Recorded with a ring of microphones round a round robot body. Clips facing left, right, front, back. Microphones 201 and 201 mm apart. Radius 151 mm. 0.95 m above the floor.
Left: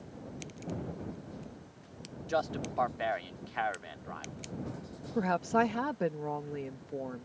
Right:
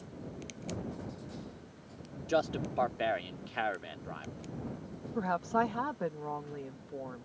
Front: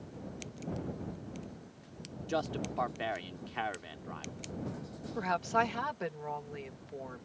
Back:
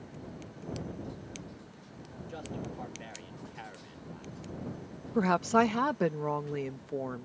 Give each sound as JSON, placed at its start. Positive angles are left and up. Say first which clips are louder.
{"t": 2.3, "sound": "a man speaking", "louder": "right 2 dB, front 6 dB", "azimuth_deg": -35}
{"t": 5.2, "sound": "a woman speaking", "louder": "left 3 dB, back 7 dB", "azimuth_deg": 160}